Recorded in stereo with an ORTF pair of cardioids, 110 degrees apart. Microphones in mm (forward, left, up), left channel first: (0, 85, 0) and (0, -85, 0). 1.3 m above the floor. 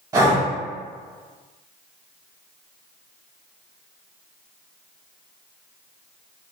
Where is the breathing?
20° right, 1.7 m.